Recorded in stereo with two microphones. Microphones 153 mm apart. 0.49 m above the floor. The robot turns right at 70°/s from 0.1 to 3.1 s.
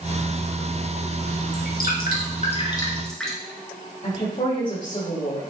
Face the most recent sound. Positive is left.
turn(degrees=50)  # may be behind; listen again after turning